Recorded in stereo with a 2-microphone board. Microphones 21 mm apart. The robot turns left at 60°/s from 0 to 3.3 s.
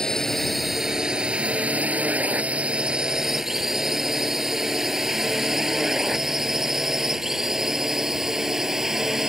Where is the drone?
35° left (ahead or behind); by 9.3 s 20° right (ahead or behind).